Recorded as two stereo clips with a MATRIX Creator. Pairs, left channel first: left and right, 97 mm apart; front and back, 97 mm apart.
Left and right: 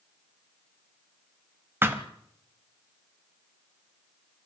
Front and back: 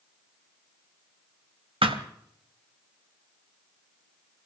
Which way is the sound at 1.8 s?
155° right.